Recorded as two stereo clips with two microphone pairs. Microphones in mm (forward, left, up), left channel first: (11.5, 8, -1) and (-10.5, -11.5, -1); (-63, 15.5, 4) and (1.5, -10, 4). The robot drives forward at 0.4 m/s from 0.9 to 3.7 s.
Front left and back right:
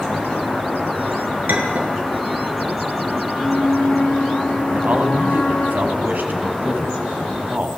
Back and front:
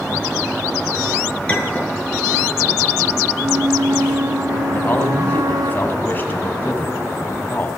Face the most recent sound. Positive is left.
turn(degrees=-145)